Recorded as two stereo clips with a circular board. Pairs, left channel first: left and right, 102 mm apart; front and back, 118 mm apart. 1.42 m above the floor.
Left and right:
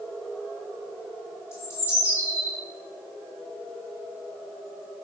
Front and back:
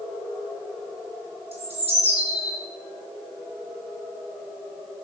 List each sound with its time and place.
1.5 s a bird: 155° left, 3.5 m